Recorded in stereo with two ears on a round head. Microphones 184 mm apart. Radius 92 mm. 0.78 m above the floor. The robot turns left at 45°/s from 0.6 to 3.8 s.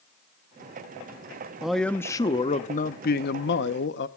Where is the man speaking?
175° right, 0.8 m; by 4.1 s 85° left, 0.8 m.